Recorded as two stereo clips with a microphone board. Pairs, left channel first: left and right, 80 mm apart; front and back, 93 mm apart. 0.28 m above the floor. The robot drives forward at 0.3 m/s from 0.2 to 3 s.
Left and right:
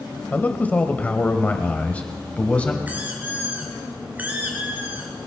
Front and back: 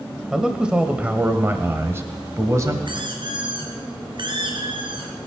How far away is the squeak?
About 3 m.